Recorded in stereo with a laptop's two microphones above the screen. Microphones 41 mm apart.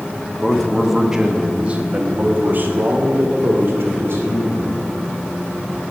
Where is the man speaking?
10° left (ahead or behind), 1.1 m; by 4.8 s 70° right (ahead or behind), 2.5 m.